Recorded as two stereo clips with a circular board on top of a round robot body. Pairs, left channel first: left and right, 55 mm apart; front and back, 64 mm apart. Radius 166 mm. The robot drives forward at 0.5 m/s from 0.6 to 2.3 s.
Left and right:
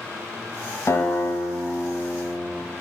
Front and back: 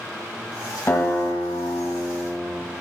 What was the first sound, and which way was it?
A guitar, 55° left.